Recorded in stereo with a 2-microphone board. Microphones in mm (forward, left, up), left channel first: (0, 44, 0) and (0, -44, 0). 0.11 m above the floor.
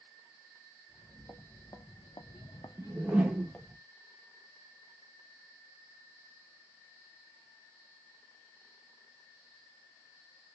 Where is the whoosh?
10° right (ahead or behind), 0.8 m.